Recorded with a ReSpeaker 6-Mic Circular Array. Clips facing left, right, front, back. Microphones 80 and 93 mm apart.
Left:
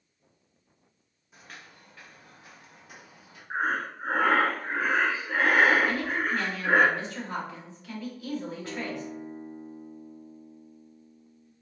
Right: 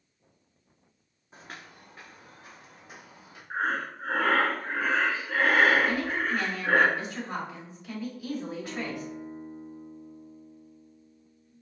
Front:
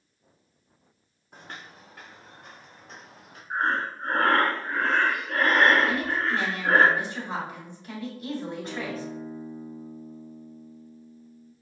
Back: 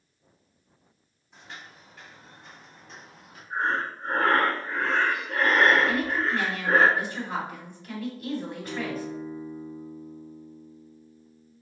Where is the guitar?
15° left, 1.8 m.